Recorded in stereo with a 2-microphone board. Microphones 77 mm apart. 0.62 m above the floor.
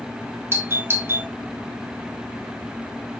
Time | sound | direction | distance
0.5 | a doorbell | 30° right (ahead or behind) | 2 m